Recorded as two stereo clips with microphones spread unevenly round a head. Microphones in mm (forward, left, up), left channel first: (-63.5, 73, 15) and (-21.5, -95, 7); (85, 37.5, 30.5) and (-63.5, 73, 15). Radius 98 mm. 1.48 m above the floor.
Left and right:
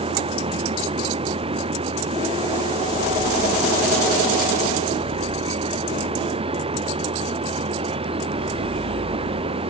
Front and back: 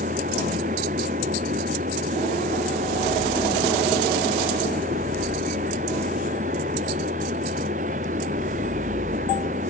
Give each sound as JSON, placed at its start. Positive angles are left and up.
{"t": 0.0, "sound": "a machine running", "azimuth_deg": -135}